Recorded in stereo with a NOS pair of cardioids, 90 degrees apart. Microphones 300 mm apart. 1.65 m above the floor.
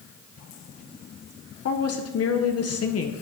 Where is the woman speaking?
55° left, 1.1 m.